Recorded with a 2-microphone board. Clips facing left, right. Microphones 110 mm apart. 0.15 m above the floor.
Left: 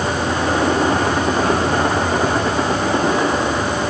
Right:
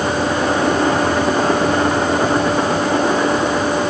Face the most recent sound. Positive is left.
No sound to turn to.